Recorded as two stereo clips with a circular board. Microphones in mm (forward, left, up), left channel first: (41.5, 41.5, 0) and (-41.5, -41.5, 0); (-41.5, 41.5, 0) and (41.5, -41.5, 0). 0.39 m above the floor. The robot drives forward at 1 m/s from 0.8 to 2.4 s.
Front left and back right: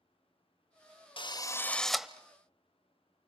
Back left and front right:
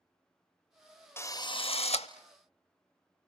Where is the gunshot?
No gunshot in this recording.